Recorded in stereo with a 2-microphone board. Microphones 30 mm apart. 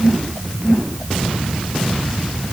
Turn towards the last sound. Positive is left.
No sound to turn to.